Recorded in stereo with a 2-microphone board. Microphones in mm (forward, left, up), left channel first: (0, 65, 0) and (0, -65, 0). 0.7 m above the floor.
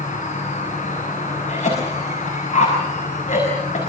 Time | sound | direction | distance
0.0 | an insect | 85° left | 6 m
1.5 | a cough | 75° left (ahead or behind) | 5.5 m